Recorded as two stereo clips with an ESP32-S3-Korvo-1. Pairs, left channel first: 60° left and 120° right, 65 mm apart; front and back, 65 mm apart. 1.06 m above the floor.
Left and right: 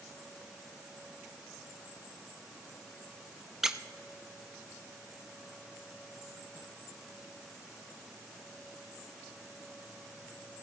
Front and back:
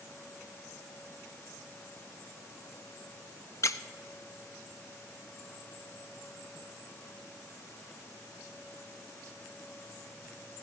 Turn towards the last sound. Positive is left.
turn(degrees=-35)